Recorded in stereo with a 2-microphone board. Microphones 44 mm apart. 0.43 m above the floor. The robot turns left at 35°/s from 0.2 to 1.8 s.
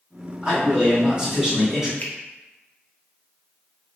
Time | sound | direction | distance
0.4 | a man speaking | 105° right | 1.4 m
2.0 | a finger snap | 30° left (ahead or behind) | 0.6 m